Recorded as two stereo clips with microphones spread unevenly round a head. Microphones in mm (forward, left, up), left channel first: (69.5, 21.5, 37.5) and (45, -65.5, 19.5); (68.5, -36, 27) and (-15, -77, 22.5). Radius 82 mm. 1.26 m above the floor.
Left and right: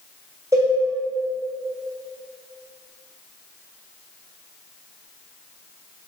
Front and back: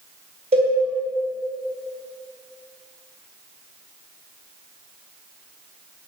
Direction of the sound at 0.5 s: Straight behind.